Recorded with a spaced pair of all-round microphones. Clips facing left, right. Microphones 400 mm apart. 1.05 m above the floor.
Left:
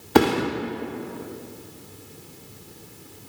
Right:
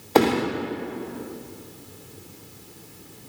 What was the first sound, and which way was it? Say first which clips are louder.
A thud: left 1 dB; 25° left (ahead or behind).